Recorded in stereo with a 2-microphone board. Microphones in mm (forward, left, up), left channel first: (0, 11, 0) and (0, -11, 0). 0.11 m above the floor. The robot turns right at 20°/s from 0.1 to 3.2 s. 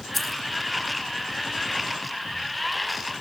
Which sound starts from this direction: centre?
Keys jangling, at 0.1 s.